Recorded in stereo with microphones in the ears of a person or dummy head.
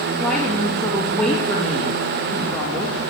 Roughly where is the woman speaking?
Centre.